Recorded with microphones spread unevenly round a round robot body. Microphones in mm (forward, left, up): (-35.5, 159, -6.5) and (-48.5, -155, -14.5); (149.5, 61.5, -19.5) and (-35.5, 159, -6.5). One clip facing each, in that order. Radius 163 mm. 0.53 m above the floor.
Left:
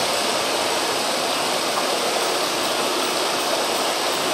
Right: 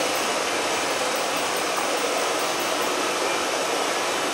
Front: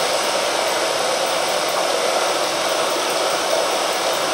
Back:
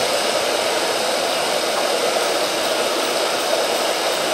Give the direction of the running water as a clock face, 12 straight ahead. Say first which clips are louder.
Left 2 dB, back 1 dB; 9 o'clock.